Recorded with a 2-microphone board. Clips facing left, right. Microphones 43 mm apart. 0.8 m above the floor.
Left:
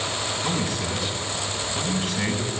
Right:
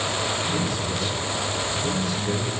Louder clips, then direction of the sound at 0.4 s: Right 1 dB; 55° left (ahead or behind).